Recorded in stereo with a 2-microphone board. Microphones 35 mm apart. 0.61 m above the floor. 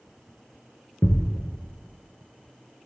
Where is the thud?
70° left (ahead or behind), 1.3 m.